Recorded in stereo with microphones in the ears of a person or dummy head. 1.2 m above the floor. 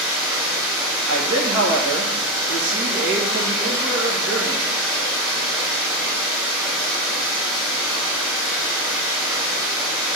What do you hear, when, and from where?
0.0 s running water: 10° right (ahead or behind), 3 m
1.1 s a man speaking: 60° right (ahead or behind), 1.5 m